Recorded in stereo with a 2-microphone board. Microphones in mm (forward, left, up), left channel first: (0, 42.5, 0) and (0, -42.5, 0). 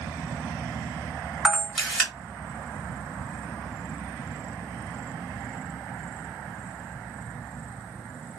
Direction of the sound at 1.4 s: Centre (ahead or behind).